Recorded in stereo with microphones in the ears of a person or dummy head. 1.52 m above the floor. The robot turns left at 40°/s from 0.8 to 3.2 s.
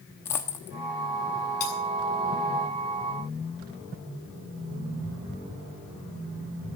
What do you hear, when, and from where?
0.2 s a dropped coin: 15° left (ahead or behind), 1.2 m
1.6 s cutlery clinking: 40° left (ahead or behind), 8 m; by 1.7 s 35° left (ahead or behind), 8 m